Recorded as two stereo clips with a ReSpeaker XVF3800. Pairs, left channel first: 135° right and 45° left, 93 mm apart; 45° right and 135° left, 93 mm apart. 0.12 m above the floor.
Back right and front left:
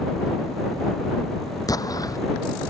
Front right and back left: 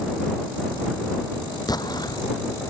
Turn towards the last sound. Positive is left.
turn(degrees=-90)